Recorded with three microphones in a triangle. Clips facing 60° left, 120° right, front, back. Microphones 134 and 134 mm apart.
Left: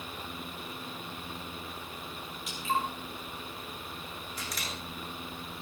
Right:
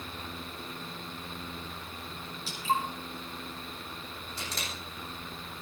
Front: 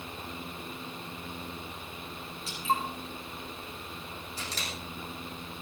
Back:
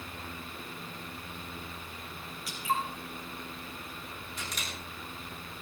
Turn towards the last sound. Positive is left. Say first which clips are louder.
# right 1 dB, front 2 dB
turn(degrees=-60)